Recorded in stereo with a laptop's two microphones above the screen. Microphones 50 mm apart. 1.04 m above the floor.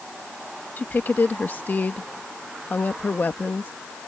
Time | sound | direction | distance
0.8 | a woman speaking | 35° left (ahead or behind) | ?